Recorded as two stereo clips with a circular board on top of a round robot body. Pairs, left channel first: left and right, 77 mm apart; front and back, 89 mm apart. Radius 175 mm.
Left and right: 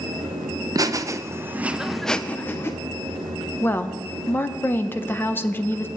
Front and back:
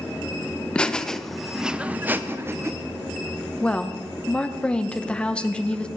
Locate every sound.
0.8 s laughter: 75° right, 1.0 m; by 2.7 s 130° left, 0.9 m
3.6 s a woman speaking: 65° left, 0.9 m